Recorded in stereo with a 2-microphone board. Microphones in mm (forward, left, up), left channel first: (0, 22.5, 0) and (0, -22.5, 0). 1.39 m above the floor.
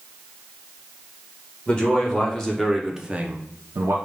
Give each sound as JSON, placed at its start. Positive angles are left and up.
{"t": 1.7, "sound": "a man speaking", "side_deg": 25, "distance_m": 1.5}